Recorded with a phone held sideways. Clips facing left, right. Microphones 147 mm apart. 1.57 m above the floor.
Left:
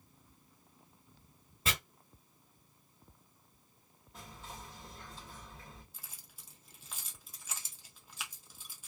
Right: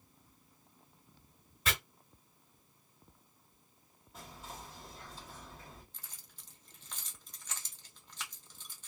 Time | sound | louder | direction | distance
1.6 | chopping | even | 30° left (ahead or behind) | 1.9 m
4.1 | whispering | right 1 dB | 5° right (ahead or behind) | 1.3 m
5.9 | keys jangling | even | 10° left (ahead or behind) | 0.6 m